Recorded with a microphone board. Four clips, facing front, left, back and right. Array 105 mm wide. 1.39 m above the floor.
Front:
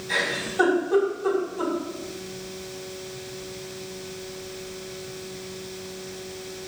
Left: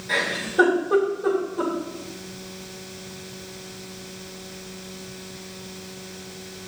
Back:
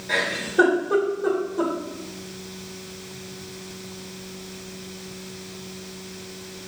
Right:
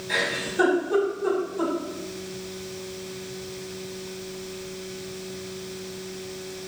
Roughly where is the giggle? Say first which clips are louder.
Left 2 dB, back 3 dB; behind left.